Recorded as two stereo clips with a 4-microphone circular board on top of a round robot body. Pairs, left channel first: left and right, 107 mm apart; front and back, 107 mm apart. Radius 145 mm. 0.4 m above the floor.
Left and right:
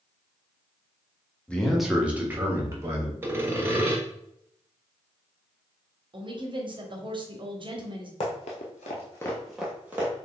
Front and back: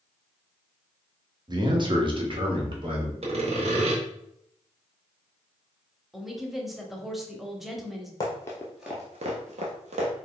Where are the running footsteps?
60° left, 0.9 m; by 10.1 s 160° right, 1.2 m.